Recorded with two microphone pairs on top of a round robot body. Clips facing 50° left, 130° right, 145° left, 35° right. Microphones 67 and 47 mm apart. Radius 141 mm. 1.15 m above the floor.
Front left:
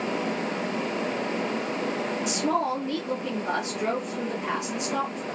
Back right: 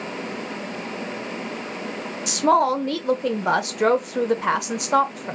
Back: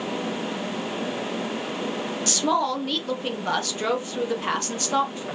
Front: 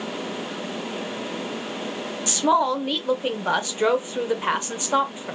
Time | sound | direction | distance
2.3 | a woman speaking | 105° right | 0.5 m